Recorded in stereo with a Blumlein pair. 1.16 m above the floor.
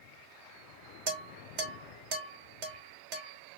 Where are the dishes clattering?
45° right, 0.9 m.